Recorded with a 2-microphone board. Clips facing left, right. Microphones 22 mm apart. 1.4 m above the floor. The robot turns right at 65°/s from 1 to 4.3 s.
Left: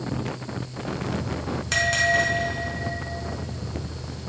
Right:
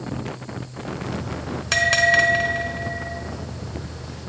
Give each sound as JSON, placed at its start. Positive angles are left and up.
{"t": 1.7, "sound": "a bell", "azimuth_deg": -160, "distance_m": 1.2}